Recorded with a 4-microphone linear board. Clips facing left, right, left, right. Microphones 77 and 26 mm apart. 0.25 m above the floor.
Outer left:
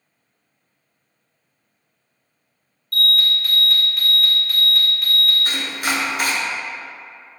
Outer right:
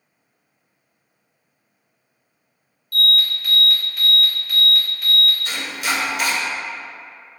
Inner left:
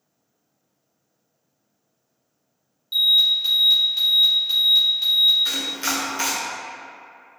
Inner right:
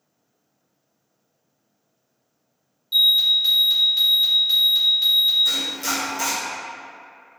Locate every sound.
2.9 s an alarm: centre (ahead or behind), 1.3 m
5.5 s chopping: 45° left (ahead or behind), 0.8 m